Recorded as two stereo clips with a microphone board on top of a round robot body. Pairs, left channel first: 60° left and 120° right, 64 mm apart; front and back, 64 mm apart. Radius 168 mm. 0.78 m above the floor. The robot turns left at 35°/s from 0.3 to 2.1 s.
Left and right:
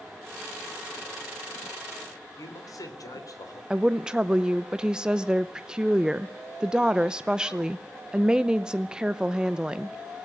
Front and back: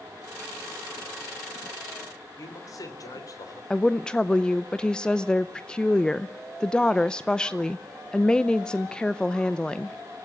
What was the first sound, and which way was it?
A man speaking, 30° left.